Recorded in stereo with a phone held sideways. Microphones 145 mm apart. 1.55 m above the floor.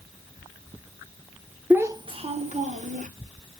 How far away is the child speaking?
About 0.5 m.